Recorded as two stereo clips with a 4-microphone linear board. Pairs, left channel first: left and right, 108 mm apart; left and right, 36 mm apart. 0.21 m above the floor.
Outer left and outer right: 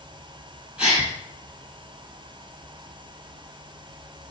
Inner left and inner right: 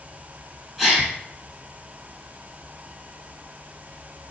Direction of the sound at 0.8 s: 5° right (ahead or behind).